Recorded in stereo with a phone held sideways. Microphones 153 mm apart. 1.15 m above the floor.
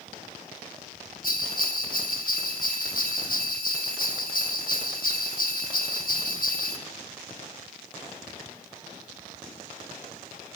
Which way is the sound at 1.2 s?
70° left (ahead or behind).